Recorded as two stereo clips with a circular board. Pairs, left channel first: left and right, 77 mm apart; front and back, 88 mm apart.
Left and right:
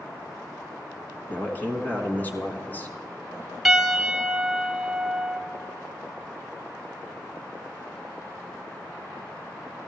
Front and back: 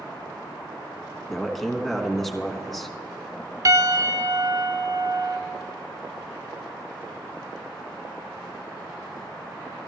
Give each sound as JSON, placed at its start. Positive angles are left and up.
{"t": 1.3, "sound": "a man speaking", "azimuth_deg": 80, "distance_m": 1.1}
{"t": 3.6, "sound": "a piano", "azimuth_deg": 180, "distance_m": 0.9}